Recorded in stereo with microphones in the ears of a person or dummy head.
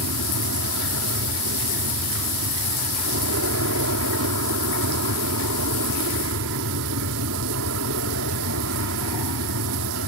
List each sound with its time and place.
0.0 s an aircraft: 70° right (ahead or behind)